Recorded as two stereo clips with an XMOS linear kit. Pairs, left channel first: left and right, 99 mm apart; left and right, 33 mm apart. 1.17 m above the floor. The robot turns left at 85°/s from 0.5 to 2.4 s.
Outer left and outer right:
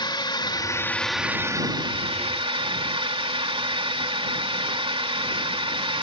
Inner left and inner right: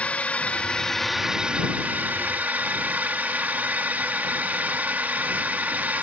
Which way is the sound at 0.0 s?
50° left.